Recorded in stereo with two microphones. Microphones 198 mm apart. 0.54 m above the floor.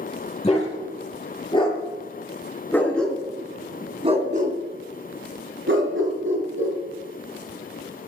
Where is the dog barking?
30° left (ahead or behind), 6 m; by 6.8 s 85° right, 4 m.